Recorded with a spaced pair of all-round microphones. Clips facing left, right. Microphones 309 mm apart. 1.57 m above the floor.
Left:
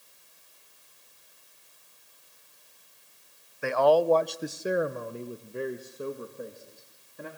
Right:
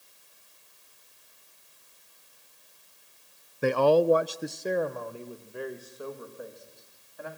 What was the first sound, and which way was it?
A man speaking, 45° right (ahead or behind).